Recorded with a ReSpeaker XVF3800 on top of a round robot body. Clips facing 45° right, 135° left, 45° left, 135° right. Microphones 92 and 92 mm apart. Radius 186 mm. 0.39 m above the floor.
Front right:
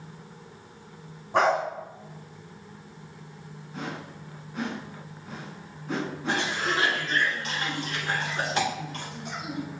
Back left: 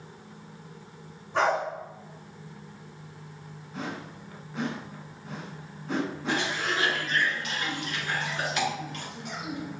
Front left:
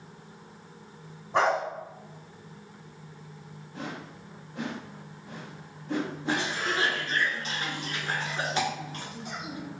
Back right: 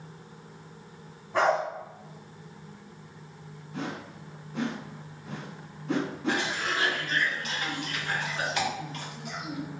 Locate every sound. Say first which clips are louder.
1.3 s a dog barking: front right 3 dB, even; 15° right, 1.5 m
3.7 s a whoosh: even, back right 3 dB; 135° right, 0.8 m
6.3 s a cough: front right 3 dB, even; straight ahead, 1.8 m